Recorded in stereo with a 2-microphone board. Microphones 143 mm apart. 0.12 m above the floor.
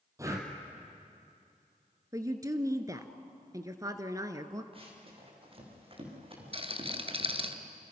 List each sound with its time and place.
0.2 s breathing: 20° right (ahead or behind), 3 m
2.1 s a woman speaking: 25° right (ahead or behind), 1.4 m
4.7 s running footsteps: 40° right (ahead or behind), 6.5 m
6.5 s a rattle: 40° right (ahead or behind), 1.2 m